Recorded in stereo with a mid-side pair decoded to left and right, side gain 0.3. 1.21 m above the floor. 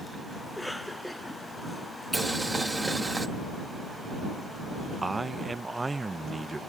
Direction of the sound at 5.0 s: 25° right.